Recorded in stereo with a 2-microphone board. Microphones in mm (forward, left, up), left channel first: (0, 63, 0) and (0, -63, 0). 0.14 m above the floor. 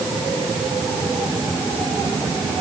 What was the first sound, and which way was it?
Only background noise.